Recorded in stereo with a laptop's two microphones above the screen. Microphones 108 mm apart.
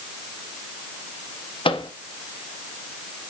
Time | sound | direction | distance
1.6 | a microwave | 55° left (ahead or behind) | 0.7 m